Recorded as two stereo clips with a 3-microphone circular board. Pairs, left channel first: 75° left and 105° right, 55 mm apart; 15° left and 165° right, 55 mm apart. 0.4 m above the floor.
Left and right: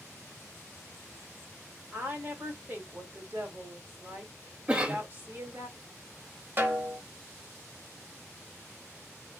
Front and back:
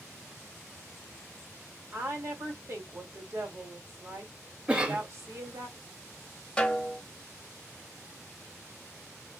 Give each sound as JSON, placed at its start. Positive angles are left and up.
{"t": 1.9, "sound": "a woman speaking", "azimuth_deg": -150, "distance_m": 2.0}
{"t": 4.7, "sound": "a cough", "azimuth_deg": -135, "distance_m": 0.9}
{"t": 6.6, "sound": "a snare drum", "azimuth_deg": -60, "distance_m": 1.0}